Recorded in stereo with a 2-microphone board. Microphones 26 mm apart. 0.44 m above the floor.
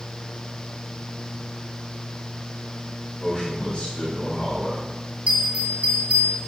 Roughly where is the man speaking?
Left.